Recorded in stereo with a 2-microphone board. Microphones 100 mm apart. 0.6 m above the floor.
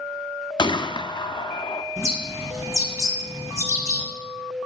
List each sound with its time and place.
0.6 s a gunshot: 45° left (ahead or behind), 0.5 m
2.0 s a bird: 30° right (ahead or behind), 2.5 m